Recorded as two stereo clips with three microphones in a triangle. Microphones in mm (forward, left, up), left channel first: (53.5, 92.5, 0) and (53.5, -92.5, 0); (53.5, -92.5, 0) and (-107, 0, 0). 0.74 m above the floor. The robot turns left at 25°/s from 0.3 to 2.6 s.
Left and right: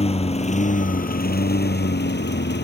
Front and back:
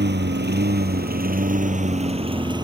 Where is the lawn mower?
145° left; by 2.6 s 85° left.